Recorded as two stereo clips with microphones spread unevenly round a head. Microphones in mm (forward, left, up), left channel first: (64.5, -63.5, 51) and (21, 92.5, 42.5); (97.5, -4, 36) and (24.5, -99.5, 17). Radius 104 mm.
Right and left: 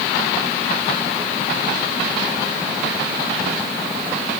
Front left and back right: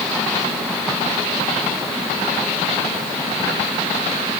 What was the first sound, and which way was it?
Only background noise.